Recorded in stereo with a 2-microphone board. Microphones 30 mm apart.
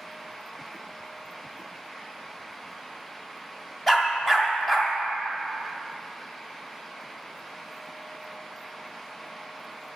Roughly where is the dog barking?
Centre.